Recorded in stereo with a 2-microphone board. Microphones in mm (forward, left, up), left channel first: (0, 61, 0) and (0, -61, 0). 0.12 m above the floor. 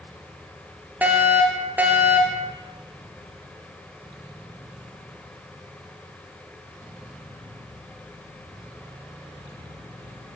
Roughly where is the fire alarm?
Centre.